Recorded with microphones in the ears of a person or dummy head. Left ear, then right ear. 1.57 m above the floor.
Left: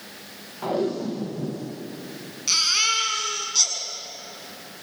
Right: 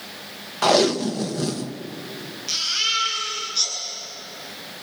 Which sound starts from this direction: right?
Tape being pulled, at 0.6 s.